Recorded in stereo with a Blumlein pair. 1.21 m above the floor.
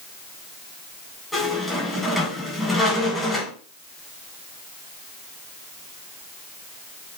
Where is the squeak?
5° left, 3.5 m.